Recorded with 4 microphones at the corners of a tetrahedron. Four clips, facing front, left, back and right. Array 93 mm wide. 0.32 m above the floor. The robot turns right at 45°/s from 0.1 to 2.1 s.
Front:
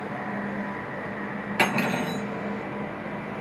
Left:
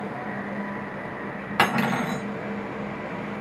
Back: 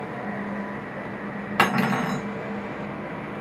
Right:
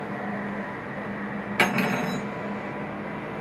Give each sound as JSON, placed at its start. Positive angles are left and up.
{"t": 1.6, "sound": "cutlery clinking", "azimuth_deg": 135, "distance_m": 1.3}